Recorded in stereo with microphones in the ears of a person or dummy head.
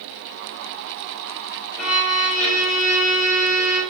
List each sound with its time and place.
1.8 s a violin: 35° left (ahead or behind), 4.5 m